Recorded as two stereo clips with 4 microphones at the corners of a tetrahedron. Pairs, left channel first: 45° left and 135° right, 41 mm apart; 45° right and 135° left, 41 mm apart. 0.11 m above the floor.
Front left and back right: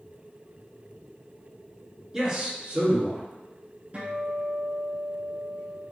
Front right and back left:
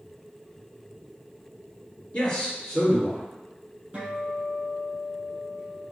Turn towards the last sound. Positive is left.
turn(degrees=-175)